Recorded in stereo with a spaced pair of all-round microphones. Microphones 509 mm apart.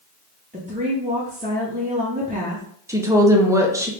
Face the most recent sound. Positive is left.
turn(degrees=-5)  # may be behind; listen again after turning